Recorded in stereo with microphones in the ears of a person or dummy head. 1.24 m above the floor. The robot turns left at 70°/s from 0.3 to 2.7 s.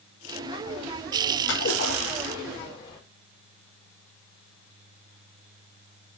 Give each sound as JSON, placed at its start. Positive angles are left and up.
{"t": 1.5, "sound": "a splash", "azimuth_deg": 120, "distance_m": 4.5}